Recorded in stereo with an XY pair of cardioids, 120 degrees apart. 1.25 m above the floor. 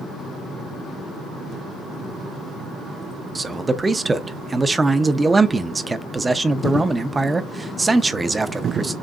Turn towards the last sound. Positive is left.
turn(degrees=-15)